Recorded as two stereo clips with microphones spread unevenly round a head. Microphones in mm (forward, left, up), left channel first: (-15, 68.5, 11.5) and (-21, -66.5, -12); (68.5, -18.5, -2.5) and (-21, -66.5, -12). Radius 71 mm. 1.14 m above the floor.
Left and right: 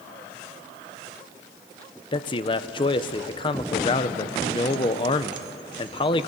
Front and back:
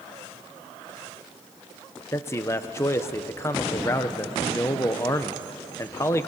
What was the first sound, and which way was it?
A man speaking, 70° left.